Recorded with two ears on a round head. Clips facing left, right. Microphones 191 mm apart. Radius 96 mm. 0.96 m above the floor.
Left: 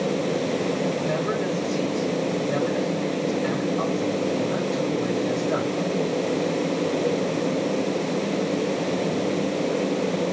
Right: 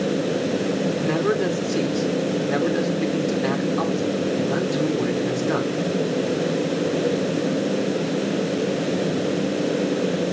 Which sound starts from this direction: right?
A man speaking, at 1.0 s.